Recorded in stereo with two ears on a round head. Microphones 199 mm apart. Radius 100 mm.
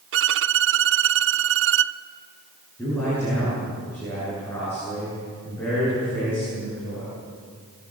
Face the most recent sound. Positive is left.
turn(degrees=10)  # may be behind; listen again after turning